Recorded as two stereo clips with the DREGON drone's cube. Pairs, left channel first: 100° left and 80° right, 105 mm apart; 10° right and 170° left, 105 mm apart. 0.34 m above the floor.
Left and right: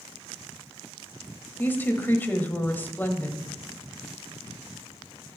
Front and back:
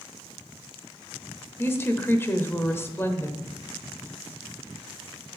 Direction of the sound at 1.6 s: 40° left.